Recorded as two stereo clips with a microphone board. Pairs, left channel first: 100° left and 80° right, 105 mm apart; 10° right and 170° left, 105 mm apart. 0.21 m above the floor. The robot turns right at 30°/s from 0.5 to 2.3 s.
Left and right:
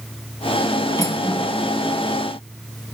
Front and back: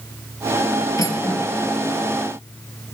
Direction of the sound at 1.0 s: 40° left.